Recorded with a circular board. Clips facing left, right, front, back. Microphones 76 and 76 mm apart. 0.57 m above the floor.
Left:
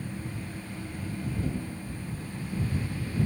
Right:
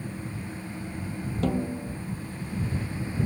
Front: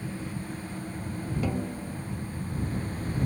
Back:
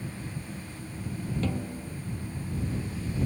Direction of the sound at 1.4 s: 80° right.